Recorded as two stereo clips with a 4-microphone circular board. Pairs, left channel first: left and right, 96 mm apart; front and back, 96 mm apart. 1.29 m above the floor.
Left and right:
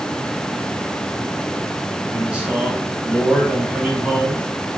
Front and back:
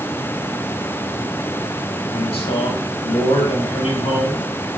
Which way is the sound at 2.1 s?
15° right.